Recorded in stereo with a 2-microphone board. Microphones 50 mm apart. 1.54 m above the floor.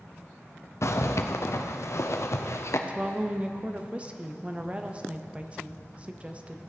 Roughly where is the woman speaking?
Right.